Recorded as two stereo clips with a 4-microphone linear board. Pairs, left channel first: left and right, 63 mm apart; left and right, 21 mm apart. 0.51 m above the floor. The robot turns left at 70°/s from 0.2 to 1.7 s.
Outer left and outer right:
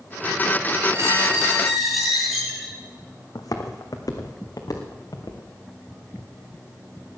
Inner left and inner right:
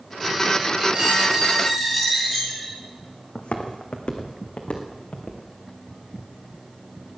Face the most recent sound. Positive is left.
turn(degrees=65)  # may be behind; listen again after turning